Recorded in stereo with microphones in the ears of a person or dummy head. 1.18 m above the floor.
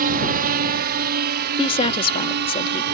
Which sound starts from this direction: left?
A woman speaking, at 1.6 s.